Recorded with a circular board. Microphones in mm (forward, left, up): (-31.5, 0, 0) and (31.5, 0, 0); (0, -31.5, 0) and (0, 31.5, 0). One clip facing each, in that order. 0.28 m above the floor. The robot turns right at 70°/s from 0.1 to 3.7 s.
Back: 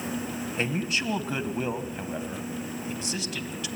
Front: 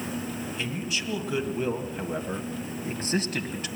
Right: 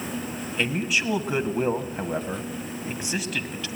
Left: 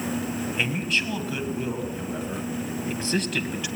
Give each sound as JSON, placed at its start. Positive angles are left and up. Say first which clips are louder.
{"t": 0.6, "sound": "a man speaking", "louder": "back 6 dB, right 3 dB", "azimuth_deg": 165, "distance_m": 1.7}